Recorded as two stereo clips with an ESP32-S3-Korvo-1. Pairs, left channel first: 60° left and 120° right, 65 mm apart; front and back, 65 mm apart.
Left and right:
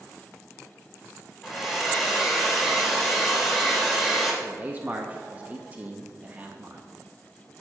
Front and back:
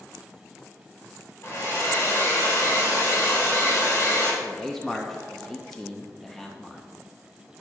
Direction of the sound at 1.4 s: 35° right.